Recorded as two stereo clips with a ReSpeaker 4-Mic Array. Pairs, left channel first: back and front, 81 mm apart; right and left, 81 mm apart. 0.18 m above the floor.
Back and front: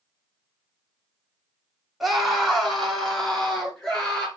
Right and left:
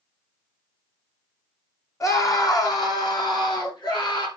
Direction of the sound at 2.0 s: 85° right.